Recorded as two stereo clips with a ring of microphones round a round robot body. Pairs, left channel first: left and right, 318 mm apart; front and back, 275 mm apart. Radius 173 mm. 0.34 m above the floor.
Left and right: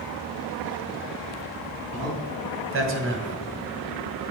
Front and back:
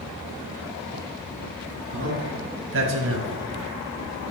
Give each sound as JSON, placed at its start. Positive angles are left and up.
{"t": 1.9, "sound": "a man speaking", "azimuth_deg": -130, "distance_m": 3.0}